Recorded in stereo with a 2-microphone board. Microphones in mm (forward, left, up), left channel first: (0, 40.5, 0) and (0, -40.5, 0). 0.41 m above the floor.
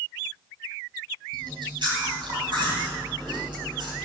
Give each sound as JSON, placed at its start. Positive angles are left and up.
{"t": 1.3, "sound": "chewing", "side_deg": -70, "distance_m": 3.0}